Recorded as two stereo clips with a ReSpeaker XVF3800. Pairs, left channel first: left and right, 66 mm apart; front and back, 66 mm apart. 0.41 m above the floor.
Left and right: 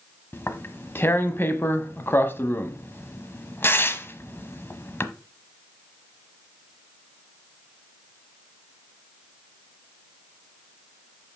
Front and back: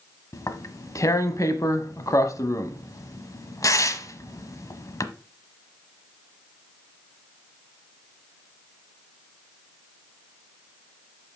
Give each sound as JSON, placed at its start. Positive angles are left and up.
{"t": 0.3, "sound": "tearing paper", "azimuth_deg": 35, "distance_m": 0.9}